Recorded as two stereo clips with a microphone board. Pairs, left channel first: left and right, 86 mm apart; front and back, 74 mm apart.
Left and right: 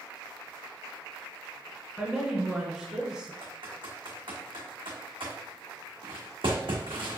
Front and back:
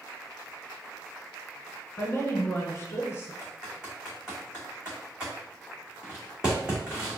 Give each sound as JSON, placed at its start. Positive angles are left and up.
{"t": 2.0, "sound": "a woman speaking", "azimuth_deg": -15, "distance_m": 1.2}
{"t": 3.4, "sound": "typing on a keyboard", "azimuth_deg": -100, "distance_m": 1.6}